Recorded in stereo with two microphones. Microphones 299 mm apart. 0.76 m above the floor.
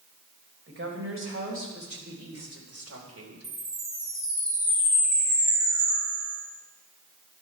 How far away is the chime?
About 5.5 m.